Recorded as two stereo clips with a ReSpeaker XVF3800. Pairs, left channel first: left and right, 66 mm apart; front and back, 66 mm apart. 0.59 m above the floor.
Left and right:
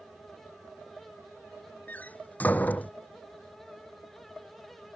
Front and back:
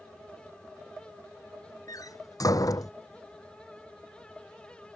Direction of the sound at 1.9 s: 25° left.